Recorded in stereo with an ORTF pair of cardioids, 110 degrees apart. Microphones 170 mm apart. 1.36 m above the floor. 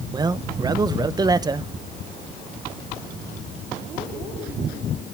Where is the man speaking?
20° right, 0.9 m.